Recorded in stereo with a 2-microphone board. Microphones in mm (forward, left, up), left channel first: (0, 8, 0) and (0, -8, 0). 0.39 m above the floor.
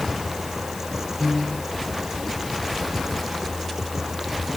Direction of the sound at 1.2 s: 35° left (ahead or behind).